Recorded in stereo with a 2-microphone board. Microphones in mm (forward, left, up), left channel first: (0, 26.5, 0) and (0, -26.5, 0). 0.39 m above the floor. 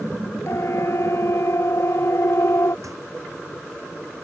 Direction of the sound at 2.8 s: 75° right (ahead or behind).